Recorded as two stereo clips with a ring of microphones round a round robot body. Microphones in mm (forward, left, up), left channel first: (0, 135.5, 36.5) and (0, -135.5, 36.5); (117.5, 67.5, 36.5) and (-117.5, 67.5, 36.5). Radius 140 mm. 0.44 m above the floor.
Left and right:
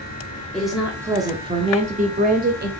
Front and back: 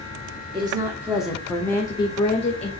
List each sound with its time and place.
0.5 s a woman speaking: 175° left, 1.2 m; by 2.7 s 50° right, 1.6 m